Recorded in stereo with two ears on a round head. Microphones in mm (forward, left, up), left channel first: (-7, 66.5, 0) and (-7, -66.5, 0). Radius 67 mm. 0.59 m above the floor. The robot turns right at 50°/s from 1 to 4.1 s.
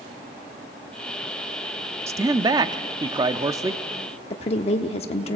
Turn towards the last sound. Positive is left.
turn(degrees=40)  # may be behind; listen again after turning